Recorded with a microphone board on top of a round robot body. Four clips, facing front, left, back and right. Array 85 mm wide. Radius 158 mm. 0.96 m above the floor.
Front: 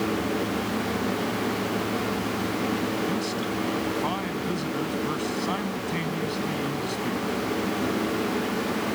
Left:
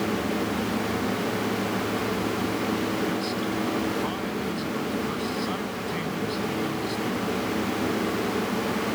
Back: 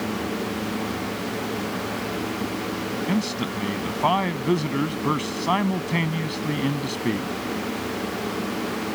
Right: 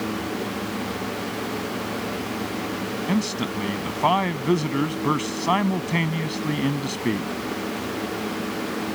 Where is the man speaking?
125° right.